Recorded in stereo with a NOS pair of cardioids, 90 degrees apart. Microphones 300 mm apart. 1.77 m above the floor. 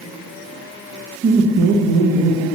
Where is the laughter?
35° right, 1.0 m; by 2.5 s 55° right, 1.5 m.